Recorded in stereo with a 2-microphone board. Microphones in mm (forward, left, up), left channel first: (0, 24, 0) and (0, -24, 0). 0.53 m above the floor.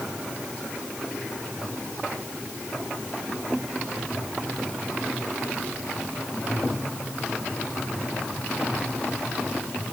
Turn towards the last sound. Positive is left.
No sound to turn to.